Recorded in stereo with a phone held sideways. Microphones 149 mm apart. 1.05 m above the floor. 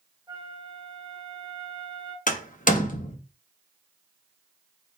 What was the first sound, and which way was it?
A flute, 25° right (ahead or behind).